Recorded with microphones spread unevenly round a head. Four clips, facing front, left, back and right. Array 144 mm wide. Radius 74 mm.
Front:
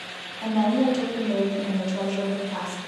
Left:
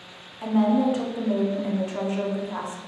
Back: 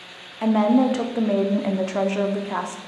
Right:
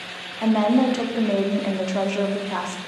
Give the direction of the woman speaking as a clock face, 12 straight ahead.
4 o'clock.